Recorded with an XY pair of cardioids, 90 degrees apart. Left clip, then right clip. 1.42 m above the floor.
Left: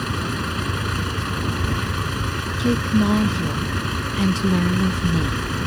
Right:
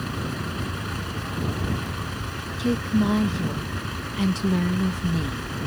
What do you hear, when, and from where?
0.0 s a vehicle: 55° left
2.6 s a woman speaking: 30° left